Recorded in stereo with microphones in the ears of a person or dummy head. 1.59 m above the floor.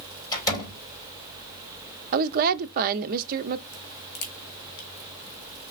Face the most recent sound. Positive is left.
turn(degrees=50)  # may be behind; listen again after turning